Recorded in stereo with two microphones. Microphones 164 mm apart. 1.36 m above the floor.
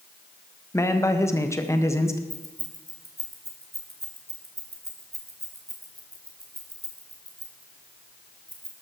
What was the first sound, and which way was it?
A man speaking, 15° left (ahead or behind).